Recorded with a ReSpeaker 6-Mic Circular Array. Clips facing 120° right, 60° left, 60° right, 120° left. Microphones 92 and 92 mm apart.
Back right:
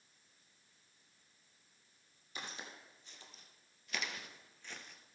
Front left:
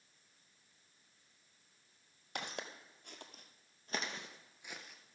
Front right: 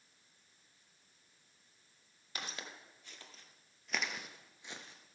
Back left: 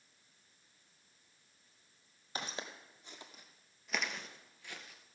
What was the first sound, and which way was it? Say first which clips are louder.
Footsteps: front left 4 dB, back left 3 dB; 60° left.